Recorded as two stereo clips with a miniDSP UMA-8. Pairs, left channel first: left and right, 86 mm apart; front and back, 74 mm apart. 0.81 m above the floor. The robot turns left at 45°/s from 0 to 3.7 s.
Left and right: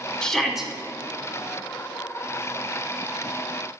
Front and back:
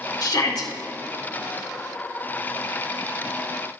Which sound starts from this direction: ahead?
A shout, at 0.2 s.